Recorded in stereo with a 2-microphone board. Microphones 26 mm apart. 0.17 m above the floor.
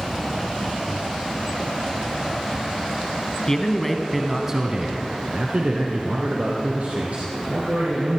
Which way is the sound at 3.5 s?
20° left (ahead or behind).